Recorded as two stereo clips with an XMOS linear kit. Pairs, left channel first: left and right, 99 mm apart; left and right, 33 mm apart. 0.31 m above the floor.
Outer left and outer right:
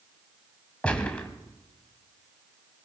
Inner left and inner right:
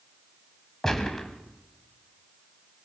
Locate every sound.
0.8 s a gunshot: 10° left (ahead or behind), 2.5 m